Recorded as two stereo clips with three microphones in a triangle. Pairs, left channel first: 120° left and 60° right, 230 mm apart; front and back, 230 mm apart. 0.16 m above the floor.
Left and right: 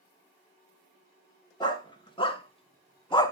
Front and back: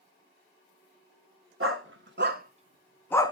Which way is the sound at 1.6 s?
170° right.